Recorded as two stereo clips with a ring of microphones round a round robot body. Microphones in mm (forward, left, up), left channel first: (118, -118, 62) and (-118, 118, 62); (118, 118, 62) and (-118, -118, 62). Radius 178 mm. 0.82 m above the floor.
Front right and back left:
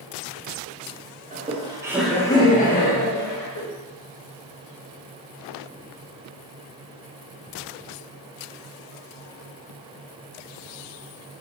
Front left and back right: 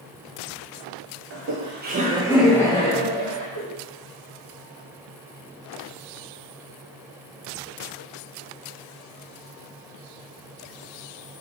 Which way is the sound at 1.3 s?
165° right.